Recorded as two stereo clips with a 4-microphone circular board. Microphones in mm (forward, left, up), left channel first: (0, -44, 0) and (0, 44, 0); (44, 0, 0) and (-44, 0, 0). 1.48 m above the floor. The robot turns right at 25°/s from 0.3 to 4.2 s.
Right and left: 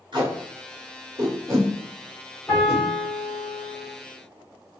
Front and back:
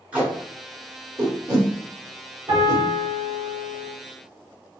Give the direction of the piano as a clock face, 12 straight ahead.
6 o'clock.